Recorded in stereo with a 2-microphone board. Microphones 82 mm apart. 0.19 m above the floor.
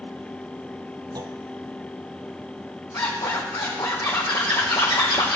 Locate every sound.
1.1 s a clunk: 55° right (ahead or behind), 0.8 m
2.9 s a zipper: 80° left, 3 m